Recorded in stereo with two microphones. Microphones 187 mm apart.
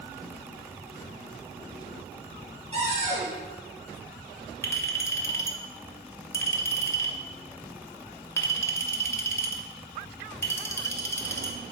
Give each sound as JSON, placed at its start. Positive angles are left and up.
{"t": 2.7, "sound": "a cupboard door", "side_deg": -35, "distance_m": 3.0}
{"t": 4.6, "sound": "a clink", "side_deg": 15, "distance_m": 0.8}